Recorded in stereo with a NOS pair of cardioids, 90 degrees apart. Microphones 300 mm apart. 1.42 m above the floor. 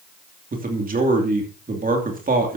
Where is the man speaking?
30° right, 2.5 m.